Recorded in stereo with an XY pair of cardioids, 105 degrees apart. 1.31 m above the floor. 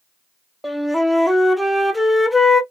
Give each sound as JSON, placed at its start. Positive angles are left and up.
{"t": 0.6, "sound": "a flute", "azimuth_deg": 5, "distance_m": 0.6}